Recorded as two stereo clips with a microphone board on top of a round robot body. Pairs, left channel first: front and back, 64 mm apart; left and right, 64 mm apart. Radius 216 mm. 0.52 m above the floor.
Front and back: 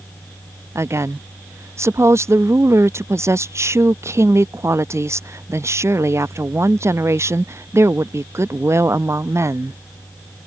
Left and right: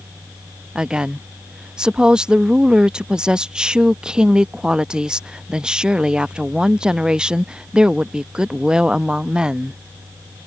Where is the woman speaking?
165° right.